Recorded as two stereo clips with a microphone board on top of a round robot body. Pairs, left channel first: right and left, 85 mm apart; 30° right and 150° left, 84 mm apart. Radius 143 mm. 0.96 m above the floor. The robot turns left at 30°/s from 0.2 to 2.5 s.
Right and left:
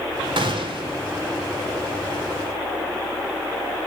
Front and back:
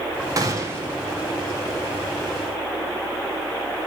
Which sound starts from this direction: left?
A gunshot, at 0.4 s.